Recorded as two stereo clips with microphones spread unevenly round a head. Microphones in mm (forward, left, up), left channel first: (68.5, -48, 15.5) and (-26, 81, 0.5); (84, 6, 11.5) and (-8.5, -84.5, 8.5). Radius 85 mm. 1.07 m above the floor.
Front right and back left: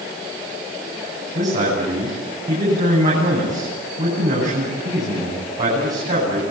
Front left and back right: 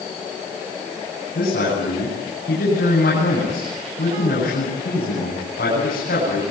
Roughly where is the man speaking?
Left.